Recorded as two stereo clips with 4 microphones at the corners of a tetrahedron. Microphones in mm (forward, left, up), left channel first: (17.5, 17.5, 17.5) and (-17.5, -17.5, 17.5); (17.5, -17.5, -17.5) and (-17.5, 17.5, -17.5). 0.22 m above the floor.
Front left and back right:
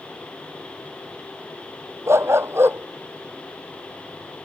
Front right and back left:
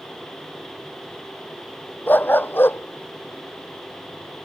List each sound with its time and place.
2.1 s a dog barking: 100° right; by 4.5 s 75° right